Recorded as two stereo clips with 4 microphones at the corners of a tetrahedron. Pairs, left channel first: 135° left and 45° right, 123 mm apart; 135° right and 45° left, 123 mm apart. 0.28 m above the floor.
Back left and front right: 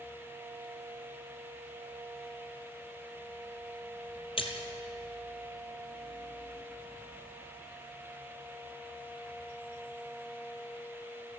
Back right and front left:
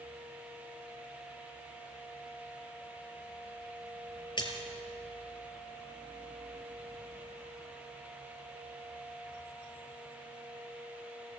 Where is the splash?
175° left, 2.5 m.